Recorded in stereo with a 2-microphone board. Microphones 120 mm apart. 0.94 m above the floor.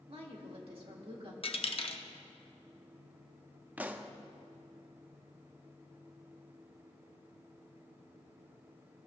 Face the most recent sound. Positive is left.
turn(degrees=-15)  # may be behind; listen again after turning